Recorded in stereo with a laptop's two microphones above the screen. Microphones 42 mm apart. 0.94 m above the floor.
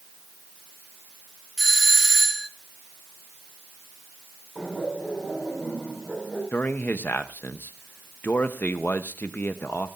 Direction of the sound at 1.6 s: 5° left (ahead or behind).